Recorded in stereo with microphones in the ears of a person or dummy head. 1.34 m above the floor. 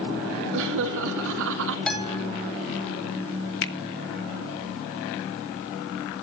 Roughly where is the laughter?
Right.